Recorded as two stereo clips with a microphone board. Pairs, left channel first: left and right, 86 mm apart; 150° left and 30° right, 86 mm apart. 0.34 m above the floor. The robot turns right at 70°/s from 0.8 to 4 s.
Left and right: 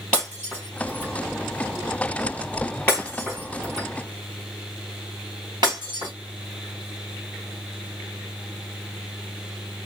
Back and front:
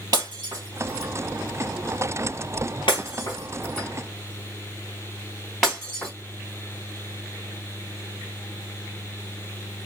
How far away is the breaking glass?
About 4 m.